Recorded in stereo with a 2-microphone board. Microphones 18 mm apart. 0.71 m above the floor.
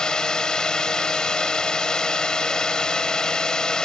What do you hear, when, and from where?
0.0 s a drone: 45° left (ahead or behind)